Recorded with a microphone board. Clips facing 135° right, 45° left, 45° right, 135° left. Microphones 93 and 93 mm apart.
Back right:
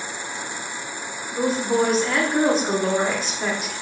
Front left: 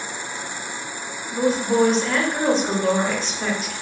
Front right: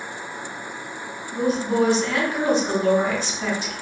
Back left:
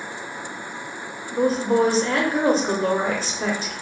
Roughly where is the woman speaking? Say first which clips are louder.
Front left 2 dB, back left 2 dB; behind left.